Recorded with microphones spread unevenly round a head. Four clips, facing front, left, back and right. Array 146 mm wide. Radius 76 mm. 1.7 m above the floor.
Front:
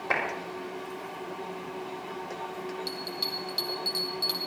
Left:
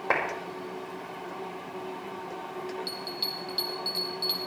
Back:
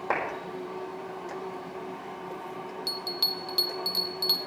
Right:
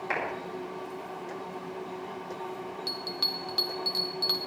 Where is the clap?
115° left, 6 m.